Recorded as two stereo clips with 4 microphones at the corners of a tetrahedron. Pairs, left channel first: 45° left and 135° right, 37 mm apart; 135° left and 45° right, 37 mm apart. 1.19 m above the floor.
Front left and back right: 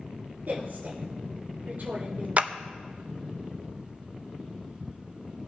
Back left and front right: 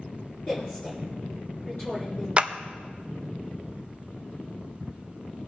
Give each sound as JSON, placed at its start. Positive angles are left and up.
{"t": 0.5, "sound": "a woman speaking", "azimuth_deg": -170, "distance_m": 2.5}
{"t": 2.4, "sound": "a clap", "azimuth_deg": -95, "distance_m": 0.5}